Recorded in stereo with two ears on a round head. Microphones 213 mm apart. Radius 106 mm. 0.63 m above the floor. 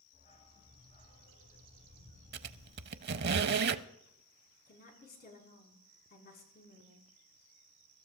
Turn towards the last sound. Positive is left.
turn(degrees=40)  # may be behind; listen again after turning